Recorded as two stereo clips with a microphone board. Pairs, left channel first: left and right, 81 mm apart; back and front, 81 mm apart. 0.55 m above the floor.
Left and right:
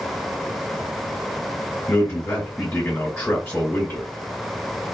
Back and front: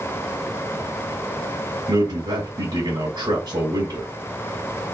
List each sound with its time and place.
1.9 s a man speaking: 20° left, 1.7 m